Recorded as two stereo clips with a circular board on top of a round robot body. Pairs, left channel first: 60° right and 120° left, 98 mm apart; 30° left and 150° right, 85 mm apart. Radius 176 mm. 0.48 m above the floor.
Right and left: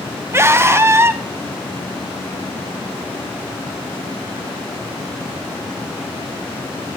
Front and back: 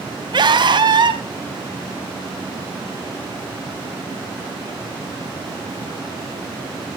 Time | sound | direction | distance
0.3 | a scream | 175° right | 3.5 m